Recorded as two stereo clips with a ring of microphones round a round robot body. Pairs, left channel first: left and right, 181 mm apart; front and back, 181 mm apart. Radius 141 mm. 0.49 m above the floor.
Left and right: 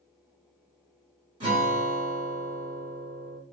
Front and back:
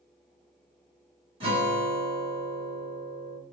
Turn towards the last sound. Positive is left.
turn(degrees=-140)